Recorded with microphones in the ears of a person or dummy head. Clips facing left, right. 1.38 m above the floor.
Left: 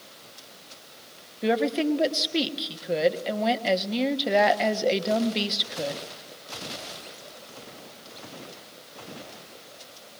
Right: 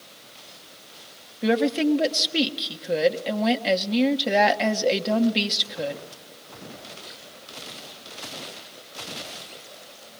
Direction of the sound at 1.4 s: Centre (ahead or behind).